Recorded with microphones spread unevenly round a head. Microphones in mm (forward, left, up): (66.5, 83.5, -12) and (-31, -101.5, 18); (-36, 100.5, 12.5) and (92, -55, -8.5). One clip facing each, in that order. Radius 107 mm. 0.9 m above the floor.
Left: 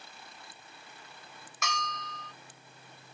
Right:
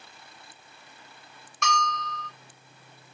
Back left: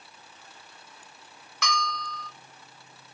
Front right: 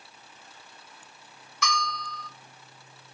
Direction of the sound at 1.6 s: 150° left.